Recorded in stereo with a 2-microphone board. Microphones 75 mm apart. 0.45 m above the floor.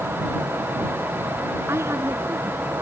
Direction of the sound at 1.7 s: 35° right (ahead or behind).